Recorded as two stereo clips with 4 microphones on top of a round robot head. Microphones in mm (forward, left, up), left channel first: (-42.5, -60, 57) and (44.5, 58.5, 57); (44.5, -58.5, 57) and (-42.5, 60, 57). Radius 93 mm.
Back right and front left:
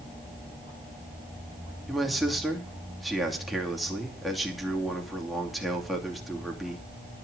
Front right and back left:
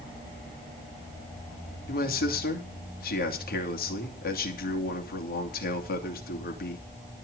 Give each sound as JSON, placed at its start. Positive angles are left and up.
{"t": 1.9, "sound": "a man speaking", "azimuth_deg": -35, "distance_m": 2.5}